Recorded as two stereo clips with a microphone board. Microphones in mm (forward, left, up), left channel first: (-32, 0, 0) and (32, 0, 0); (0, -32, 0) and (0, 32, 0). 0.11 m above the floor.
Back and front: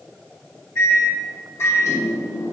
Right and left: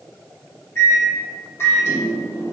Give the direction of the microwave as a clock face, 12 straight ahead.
5 o'clock.